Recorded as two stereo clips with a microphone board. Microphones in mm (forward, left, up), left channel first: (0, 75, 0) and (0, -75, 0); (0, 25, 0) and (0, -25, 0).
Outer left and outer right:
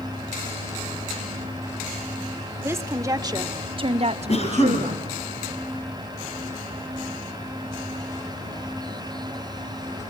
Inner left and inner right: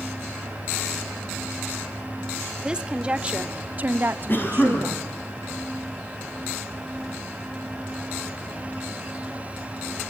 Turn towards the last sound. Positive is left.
turn(degrees=45)  # may be behind; listen again after turning